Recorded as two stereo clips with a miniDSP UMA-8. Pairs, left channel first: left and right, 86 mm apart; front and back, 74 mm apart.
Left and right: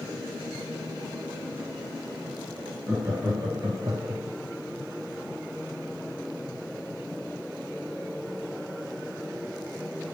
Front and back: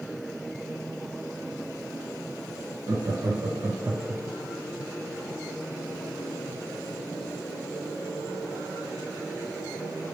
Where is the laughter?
145° right, 1.5 m; by 4.2 s 105° right, 0.9 m.